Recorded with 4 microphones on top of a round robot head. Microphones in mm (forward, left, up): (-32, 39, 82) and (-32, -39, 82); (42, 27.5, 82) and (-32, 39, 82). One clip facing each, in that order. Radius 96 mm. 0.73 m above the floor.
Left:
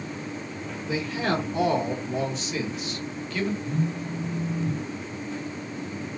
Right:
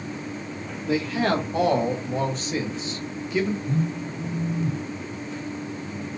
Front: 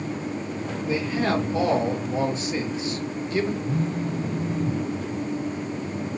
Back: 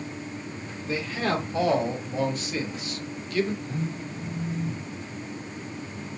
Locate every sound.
0.9 s a man speaking: 80° right, 1.9 m; by 3.5 s 15° right, 1.0 m
3.6 s a phone buzzing: 45° right, 1.8 m